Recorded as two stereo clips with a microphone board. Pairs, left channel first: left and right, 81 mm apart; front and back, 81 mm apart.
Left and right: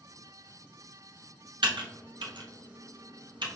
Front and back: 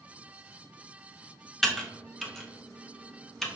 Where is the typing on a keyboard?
85° right, 0.7 m.